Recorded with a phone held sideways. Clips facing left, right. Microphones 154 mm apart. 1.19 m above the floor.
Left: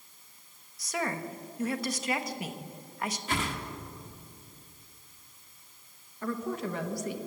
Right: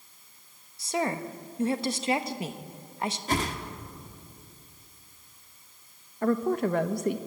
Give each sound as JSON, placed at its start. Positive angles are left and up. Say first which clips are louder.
{"t": 0.8, "sound": "a woman speaking", "louder": "right 4 dB", "side_deg": -30, "distance_m": 1.2}
{"t": 3.3, "sound": "a whoosh", "louder": "right 5 dB", "side_deg": -40, "distance_m": 1.7}
{"t": 6.2, "sound": "a woman speaking", "louder": "right 8 dB", "side_deg": -60, "distance_m": 1.2}